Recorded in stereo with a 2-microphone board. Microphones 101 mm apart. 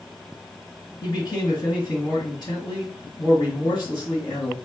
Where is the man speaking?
45° left (ahead or behind), 2 m.